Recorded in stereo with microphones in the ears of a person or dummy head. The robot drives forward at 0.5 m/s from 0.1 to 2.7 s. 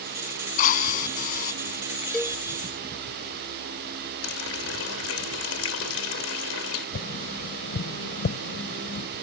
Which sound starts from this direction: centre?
A cowbell, at 2.1 s.